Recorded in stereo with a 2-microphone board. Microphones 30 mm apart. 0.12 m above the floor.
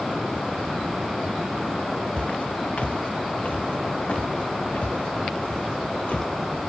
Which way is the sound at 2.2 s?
50° left (ahead or behind).